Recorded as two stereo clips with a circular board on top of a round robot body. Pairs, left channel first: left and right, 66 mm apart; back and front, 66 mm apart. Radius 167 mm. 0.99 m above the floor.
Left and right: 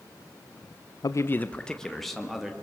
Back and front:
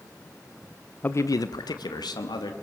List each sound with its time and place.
1.0 s a man speaking: 115° left, 0.5 m; by 2.5 s 175° right, 2 m